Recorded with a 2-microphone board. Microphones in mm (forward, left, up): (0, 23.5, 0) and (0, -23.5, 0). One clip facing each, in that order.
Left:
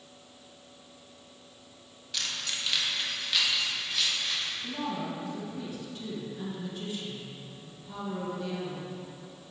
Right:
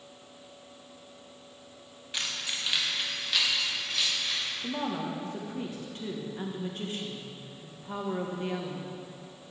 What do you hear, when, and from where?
2.1 s keys jangling: 25° right (ahead or behind), 0.8 m; by 4.5 s 5° left (ahead or behind), 3 m
4.6 s a woman speaking: 45° right (ahead or behind), 1.2 m